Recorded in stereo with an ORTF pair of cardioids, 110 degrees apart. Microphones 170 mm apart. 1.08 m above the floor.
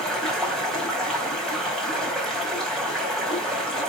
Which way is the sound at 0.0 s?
Straight ahead.